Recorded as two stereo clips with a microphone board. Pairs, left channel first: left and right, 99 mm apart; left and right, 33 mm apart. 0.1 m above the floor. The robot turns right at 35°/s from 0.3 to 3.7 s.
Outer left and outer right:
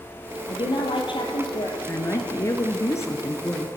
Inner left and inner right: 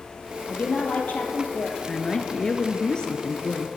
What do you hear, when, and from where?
0.5 s a woman speaking: 80° left, 2 m; by 1.8 s 125° left, 2 m
1.9 s a woman speaking: 70° left, 1.2 m; by 3.7 s 130° left, 1.2 m